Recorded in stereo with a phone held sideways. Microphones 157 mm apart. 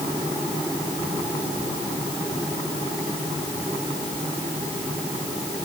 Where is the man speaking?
I don't hear a man speaking.